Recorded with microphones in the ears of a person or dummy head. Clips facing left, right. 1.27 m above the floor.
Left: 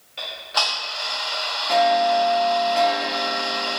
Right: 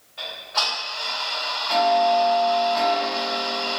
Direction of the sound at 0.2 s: 20° left (ahead or behind).